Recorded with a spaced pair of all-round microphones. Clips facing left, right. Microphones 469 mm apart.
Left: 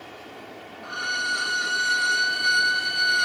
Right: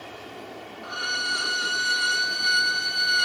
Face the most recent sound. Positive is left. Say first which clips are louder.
# right 1 dB
turn(degrees=0)  # may be behind; listen again after turning